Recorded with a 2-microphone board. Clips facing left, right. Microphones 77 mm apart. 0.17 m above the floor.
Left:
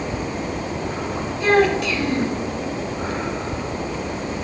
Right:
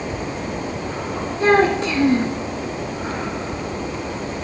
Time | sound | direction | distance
1.4 | a child speaking | 35° right (ahead or behind) | 0.8 m